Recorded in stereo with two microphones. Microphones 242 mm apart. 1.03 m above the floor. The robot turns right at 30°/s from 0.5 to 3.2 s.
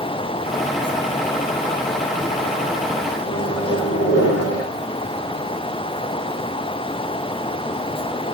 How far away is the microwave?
About 3.5 m.